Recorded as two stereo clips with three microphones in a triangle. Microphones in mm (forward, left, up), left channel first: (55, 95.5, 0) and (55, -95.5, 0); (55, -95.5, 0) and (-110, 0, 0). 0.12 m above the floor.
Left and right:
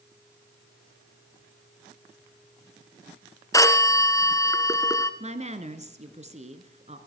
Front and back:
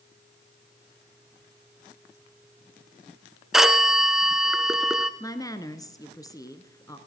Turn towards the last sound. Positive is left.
turn(degrees=-90)